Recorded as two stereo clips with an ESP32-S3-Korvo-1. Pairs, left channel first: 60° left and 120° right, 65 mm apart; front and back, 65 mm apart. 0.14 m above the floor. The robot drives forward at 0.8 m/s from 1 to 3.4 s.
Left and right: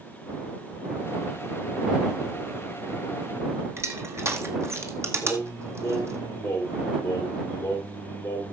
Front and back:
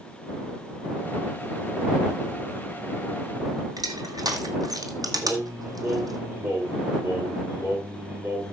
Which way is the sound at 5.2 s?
115° left.